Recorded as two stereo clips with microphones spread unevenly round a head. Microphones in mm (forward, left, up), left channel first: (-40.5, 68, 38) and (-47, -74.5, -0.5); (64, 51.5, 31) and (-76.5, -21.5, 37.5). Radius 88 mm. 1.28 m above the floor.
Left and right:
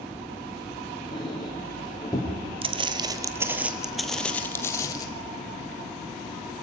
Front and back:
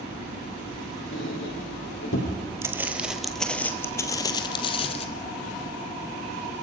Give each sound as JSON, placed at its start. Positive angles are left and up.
{"t": 1.1, "sound": "a squeak", "azimuth_deg": 20, "distance_m": 6.0}
{"t": 2.6, "sound": "footsteps", "azimuth_deg": -115, "distance_m": 1.3}